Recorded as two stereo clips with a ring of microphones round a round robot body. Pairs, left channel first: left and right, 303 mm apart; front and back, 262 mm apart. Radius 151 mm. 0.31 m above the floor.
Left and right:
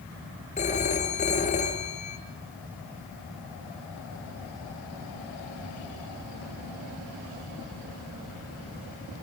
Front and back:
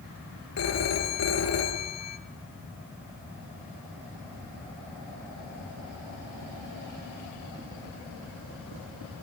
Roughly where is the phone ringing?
Ahead.